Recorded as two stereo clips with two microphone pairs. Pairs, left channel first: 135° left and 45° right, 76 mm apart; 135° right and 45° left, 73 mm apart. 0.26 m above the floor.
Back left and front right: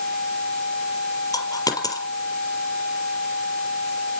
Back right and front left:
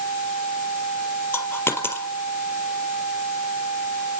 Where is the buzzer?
No buzzer in this recording.